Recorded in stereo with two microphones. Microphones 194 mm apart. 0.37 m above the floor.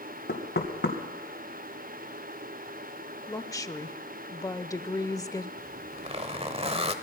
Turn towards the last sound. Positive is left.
turn(degrees=-30)  # may be behind; listen again after turning